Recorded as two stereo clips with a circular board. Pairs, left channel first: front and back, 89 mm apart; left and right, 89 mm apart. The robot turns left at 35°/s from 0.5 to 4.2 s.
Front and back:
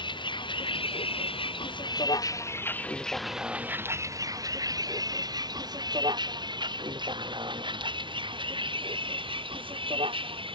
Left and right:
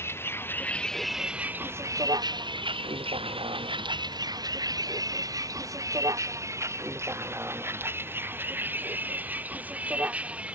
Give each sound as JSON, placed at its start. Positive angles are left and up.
{"t": 0.0, "sound": "a vehicle", "azimuth_deg": 30}